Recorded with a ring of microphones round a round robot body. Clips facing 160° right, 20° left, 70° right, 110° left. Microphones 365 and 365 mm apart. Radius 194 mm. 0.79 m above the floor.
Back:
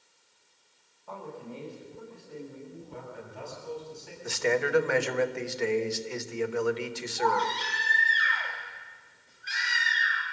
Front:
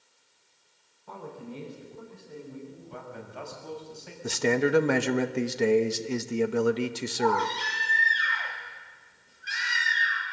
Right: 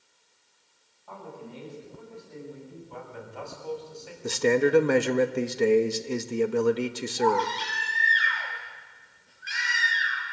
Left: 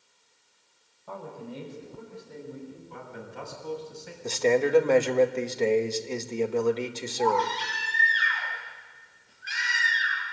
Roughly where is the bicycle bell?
I don't hear a bicycle bell.